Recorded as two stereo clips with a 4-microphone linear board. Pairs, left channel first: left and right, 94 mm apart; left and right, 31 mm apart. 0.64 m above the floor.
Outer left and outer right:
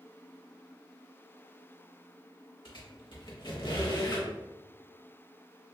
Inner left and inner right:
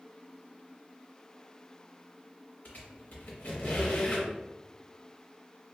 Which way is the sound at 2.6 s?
55° left (ahead or behind).